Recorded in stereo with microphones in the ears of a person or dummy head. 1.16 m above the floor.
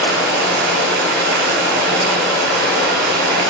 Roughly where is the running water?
Right.